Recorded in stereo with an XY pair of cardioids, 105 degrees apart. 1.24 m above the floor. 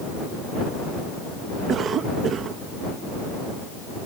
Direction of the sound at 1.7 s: 60° right.